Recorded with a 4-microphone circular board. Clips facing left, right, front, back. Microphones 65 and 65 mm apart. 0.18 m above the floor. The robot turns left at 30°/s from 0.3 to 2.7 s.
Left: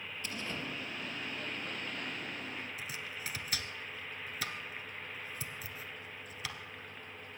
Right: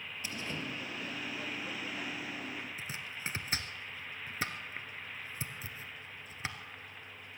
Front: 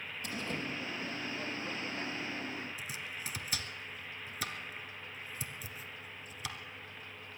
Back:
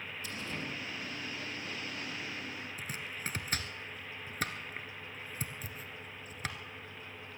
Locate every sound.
0.2 s a door slam: 15° right, 3.5 m; by 0.7 s 25° right, 3.5 m
2.8 s chopping: 145° right, 1.3 m